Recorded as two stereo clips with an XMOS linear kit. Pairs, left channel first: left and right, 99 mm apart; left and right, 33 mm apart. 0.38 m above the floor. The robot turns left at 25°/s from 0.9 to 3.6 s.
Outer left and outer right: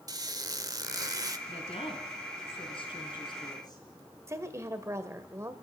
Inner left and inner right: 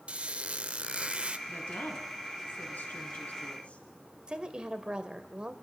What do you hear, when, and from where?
0.1 s a squeak: 40° right (ahead or behind), 0.9 m; by 1.4 s 35° right (ahead or behind), 0.9 m
1.5 s a woman speaking: 100° left, 4.5 m; by 3.8 s 45° left, 4.5 m
4.3 s a woman speaking: 30° right (ahead or behind), 1.6 m